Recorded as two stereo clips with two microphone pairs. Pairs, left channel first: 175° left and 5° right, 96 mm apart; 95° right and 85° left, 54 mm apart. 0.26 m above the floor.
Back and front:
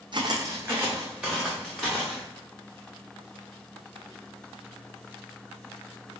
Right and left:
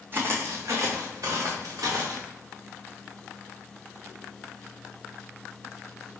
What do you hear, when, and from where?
0.1 s footsteps: 30° left, 0.8 m; by 2.2 s 90° left, 2 m